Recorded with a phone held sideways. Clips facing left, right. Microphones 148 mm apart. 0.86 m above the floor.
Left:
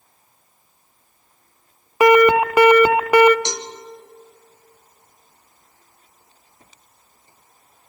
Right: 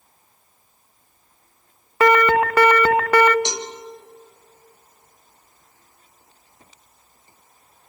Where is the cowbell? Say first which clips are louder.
Even; 20° right (ahead or behind), 1.4 m.